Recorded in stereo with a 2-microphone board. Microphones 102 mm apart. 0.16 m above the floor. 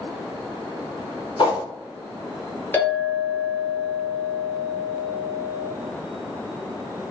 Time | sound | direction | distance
1.4 | a whoosh | 50° left (ahead or behind) | 1.0 m
2.7 | a clink | 20° left (ahead or behind) | 1.0 m